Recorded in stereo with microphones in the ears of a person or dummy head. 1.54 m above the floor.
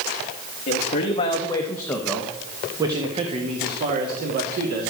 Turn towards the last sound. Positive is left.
turn(degrees=-50)  # may be behind; listen again after turning